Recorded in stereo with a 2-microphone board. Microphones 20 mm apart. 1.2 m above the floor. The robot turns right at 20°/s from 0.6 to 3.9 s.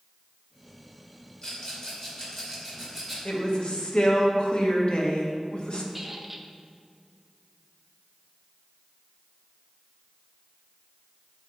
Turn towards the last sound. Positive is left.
turn(degrees=-5)  # may be behind; listen again after turning